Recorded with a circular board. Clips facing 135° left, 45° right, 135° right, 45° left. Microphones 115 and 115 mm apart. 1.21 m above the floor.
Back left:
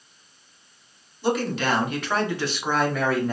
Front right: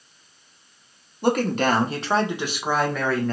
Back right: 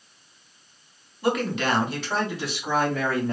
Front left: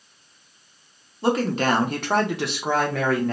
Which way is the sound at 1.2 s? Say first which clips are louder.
Front right 3 dB, front left 3 dB; 15° right.